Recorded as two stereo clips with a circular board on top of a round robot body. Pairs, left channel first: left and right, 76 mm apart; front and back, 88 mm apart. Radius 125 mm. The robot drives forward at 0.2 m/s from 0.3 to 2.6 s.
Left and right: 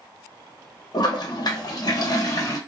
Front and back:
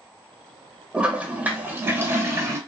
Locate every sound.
0.9 s a toilet flushing: 105° left, 0.8 m; by 2.6 s 125° left, 0.9 m